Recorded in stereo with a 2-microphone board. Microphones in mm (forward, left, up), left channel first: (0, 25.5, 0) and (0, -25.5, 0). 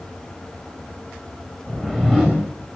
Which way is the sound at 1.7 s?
5° left (ahead or behind).